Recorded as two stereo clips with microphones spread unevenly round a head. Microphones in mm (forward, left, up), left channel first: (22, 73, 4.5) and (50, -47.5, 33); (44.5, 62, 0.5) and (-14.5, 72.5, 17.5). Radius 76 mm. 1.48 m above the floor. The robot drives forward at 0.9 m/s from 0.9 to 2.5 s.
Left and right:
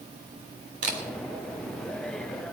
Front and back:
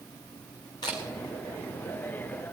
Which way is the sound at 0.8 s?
65° right.